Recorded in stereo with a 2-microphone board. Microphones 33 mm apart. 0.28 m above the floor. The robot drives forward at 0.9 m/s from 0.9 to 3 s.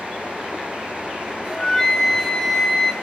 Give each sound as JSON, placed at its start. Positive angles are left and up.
{"t": 1.5, "sound": "a flute", "side_deg": 15, "distance_m": 1.1}